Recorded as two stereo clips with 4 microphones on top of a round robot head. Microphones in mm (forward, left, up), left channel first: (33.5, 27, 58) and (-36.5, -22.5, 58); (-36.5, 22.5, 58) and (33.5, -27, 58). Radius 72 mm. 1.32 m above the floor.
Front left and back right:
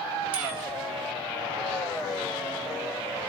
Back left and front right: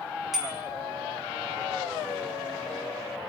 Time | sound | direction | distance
0.3 | a bicycle bell | 120° right | 2.5 m